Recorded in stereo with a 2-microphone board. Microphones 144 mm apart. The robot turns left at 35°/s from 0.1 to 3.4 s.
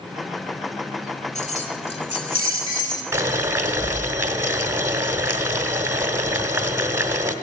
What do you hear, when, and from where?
1.4 s keys jangling: 85° left, 1.5 m; by 3.0 s 25° left, 1.5 m
3.1 s boiling: 20° right (ahead or behind), 1.1 m; by 7.3 s 15° right (ahead or behind), 1.1 m